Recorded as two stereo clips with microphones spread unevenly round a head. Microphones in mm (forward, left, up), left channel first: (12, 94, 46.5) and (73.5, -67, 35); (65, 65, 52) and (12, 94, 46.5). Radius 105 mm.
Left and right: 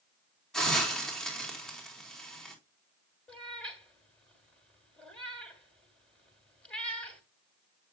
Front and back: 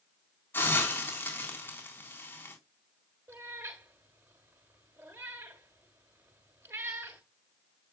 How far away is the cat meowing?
About 1.5 m.